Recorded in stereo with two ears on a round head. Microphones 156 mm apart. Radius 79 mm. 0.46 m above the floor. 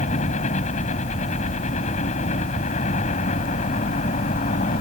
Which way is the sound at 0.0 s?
45° left (ahead or behind).